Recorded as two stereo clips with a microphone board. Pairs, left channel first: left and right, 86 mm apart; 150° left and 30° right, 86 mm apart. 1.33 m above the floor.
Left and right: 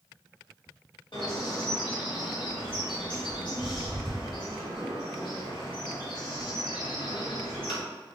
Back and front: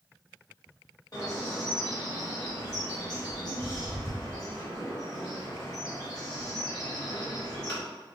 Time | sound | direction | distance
1.1 | a bird | 110° left | 1.5 m